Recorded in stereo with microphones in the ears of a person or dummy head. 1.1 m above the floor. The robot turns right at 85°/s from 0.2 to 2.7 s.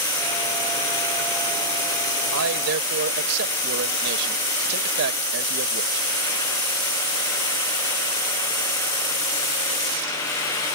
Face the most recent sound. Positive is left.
turn(degrees=-55)